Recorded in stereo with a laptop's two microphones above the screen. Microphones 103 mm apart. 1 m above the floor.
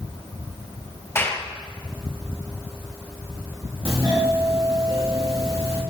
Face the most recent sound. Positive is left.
turn(degrees=-65)  # may be behind; listen again after turning